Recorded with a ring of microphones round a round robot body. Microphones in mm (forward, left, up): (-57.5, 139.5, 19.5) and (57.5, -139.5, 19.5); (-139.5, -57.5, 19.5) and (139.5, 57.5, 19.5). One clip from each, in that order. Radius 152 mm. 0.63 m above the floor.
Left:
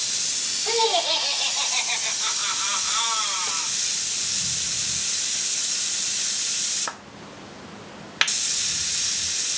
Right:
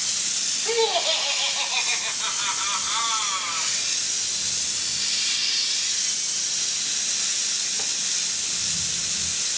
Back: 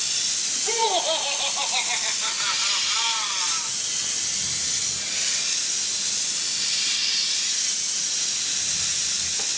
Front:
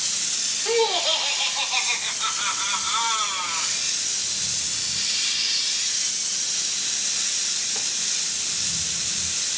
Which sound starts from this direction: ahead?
Laughter, at 0.7 s.